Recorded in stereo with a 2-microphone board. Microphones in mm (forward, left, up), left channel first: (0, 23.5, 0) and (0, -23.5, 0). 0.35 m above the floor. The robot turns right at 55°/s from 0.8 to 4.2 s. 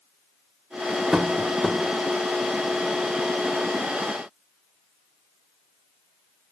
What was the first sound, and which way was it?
Tapping, 15° right (ahead or behind).